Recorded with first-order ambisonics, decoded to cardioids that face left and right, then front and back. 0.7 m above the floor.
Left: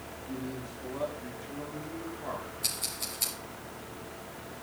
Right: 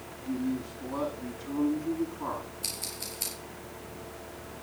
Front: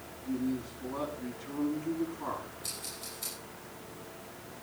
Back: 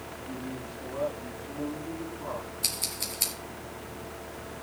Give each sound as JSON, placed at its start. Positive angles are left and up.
{"t": 0.2, "sound": "a man speaking", "azimuth_deg": -70, "distance_m": 9.0}
{"t": 2.6, "sound": "scissors", "azimuth_deg": 180, "distance_m": 5.0}